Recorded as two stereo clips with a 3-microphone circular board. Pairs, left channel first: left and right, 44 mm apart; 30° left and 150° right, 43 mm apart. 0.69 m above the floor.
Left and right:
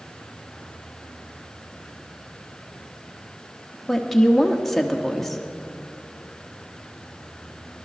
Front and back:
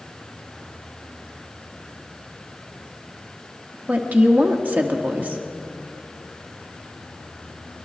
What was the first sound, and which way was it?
A woman speaking, 175° left.